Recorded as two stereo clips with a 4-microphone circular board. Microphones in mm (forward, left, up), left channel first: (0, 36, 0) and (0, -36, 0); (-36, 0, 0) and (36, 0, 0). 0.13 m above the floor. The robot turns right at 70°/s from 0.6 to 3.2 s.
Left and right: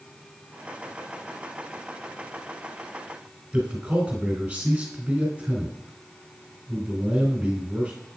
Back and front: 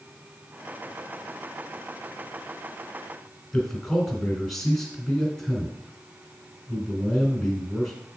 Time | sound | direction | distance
3.5 | a man speaking | 105° right | 1.8 m